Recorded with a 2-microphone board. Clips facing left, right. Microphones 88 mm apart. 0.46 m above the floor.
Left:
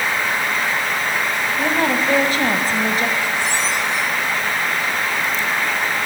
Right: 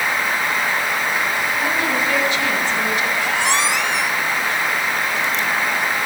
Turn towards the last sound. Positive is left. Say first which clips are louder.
# right 2 dB
turn(degrees=-70)  # may be behind; listen again after turning